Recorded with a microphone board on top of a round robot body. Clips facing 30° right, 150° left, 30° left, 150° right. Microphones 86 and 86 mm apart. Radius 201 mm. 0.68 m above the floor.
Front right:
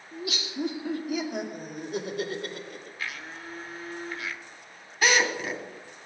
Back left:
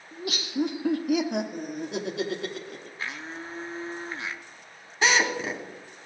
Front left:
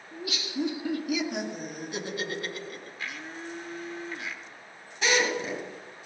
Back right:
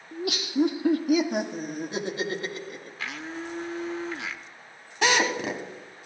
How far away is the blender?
About 0.9 m.